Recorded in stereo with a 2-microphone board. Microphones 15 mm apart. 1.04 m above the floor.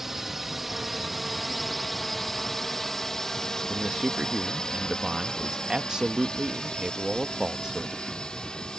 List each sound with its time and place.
0.0 s a drone: 20° right (ahead or behind); by 8.8 s 75° left (ahead or behind)
3.7 s a man speaking: 50° right (ahead or behind)